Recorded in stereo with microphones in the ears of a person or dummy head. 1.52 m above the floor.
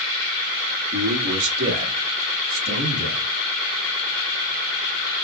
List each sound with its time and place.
0.9 s a man speaking: 65° right (ahead or behind), 1.2 m; by 3.3 s 75° right (ahead or behind), 3 m